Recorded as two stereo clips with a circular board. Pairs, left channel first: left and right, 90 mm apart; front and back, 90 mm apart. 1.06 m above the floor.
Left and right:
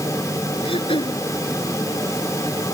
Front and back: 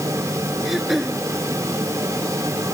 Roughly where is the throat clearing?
Left.